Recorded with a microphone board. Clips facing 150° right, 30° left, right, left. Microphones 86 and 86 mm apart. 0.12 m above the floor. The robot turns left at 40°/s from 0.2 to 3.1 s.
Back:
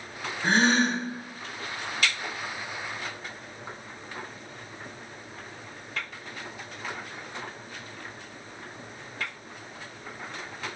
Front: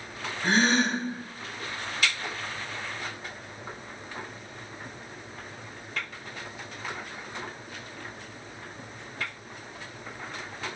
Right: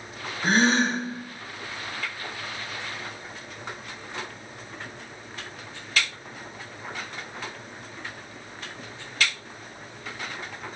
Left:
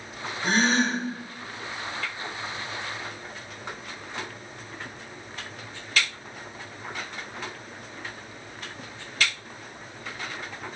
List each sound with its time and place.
0.4 s a gasp: 95° right, 0.9 m; by 1.0 s 120° right, 0.9 m